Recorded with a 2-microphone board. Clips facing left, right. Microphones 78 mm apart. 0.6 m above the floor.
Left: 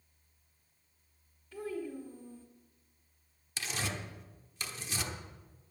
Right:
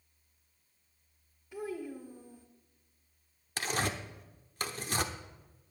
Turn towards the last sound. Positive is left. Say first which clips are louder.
# right 5 dB
turn(degrees=-50)  # may be behind; listen again after turning